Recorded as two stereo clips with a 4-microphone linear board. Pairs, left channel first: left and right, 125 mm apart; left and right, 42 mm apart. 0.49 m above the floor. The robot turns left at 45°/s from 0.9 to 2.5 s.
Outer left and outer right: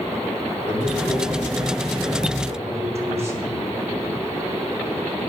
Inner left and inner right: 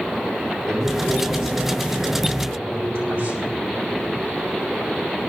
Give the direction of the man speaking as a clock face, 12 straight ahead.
12 o'clock.